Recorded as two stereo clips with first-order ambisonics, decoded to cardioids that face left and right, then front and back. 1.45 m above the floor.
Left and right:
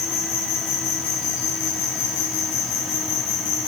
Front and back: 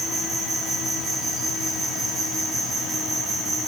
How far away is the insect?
About 2 m.